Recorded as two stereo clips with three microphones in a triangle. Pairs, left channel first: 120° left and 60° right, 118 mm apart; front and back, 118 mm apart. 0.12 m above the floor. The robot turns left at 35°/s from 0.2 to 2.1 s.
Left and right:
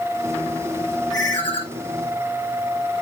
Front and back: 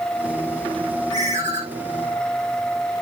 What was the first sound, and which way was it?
A ringtone, 175° left.